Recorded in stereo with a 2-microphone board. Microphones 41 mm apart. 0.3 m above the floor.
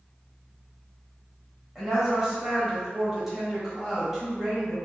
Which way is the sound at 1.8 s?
10° right (ahead or behind).